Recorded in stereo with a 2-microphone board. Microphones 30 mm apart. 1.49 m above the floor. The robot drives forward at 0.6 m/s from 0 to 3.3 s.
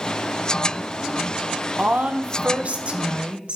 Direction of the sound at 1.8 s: 70° right (ahead or behind).